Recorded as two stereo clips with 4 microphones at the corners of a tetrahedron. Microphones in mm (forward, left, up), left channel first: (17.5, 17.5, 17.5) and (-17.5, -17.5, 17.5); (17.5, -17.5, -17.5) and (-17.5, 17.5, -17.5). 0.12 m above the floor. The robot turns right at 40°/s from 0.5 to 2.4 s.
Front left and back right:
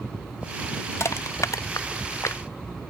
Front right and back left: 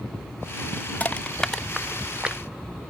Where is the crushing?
15° left; by 2.4 s 70° left.